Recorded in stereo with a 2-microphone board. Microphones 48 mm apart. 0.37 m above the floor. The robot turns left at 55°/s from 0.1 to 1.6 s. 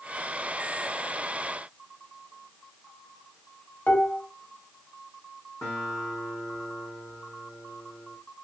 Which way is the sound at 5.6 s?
65° left (ahead or behind).